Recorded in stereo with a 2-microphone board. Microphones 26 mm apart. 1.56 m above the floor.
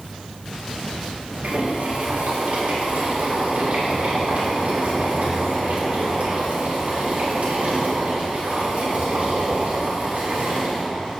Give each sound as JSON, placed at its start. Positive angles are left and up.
{"t": 1.4, "sound": "boiling", "side_deg": -80, "distance_m": 3.5}